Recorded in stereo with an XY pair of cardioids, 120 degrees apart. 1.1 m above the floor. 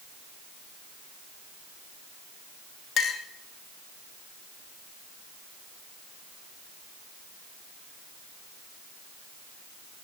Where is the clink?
60° left, 0.8 m.